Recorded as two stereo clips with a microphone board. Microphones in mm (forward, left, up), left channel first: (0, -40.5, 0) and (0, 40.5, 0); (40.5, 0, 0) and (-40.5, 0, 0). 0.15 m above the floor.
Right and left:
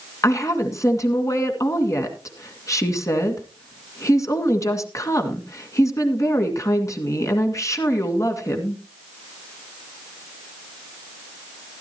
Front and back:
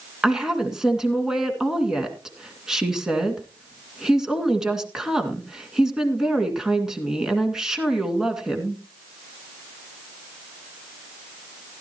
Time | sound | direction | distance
0.2 | a woman speaking | 100° right | 2 m